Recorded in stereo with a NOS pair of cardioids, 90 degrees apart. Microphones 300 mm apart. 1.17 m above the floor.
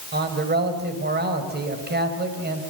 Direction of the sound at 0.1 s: 30° right.